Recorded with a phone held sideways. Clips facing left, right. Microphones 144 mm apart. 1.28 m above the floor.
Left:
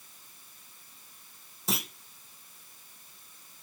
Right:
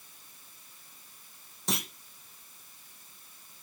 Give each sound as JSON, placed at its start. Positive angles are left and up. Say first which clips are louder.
{"t": 1.7, "sound": "a clunk", "louder": "even", "side_deg": 5, "distance_m": 0.9}